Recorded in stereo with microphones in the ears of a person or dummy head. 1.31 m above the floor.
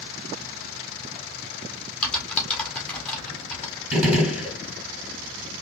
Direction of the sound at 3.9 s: 10° right (ahead or behind).